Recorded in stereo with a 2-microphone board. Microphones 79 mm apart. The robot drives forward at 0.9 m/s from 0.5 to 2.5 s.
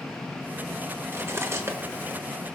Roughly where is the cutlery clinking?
Right.